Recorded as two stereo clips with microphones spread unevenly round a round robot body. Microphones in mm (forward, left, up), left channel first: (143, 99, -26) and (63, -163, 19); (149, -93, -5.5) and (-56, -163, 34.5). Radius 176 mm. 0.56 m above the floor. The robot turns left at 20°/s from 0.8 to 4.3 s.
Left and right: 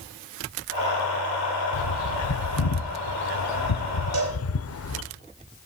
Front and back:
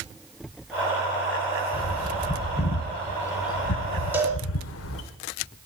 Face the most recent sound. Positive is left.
turn(degrees=-80)